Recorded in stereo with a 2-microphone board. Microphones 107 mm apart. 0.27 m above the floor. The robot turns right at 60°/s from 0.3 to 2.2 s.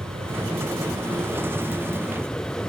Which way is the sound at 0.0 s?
70° right (ahead or behind).